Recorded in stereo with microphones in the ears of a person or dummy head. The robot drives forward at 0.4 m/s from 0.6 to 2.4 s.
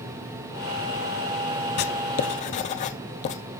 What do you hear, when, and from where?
1.8 s writing: 55° left (ahead or behind), 0.6 m; by 3.4 s 40° left (ahead or behind), 0.8 m